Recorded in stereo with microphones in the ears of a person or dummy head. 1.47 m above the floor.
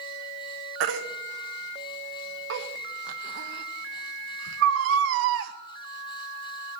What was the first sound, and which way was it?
A baby crying, 70° right (ahead or behind).